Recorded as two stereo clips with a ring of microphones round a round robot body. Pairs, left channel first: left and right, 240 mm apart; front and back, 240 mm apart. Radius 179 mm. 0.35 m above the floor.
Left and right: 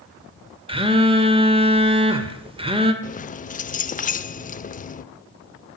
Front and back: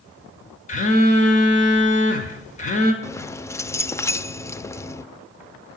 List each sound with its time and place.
0.7 s a phone buzzing: 35° right, 1.8 m
3.0 s keys jangling: 70° left, 0.7 m